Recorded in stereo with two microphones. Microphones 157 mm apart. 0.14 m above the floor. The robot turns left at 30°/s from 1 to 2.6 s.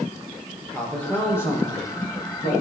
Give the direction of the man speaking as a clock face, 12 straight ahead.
6 o'clock.